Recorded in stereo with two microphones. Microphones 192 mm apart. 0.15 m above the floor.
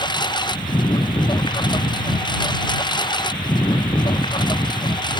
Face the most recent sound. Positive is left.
turn(degrees=20)  # may be behind; listen again after turning